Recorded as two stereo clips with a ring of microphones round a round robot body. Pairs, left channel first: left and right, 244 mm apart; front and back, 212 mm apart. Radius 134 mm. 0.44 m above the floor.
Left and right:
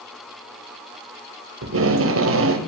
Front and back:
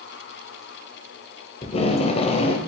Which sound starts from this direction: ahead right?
Tape being pulled, at 1.6 s.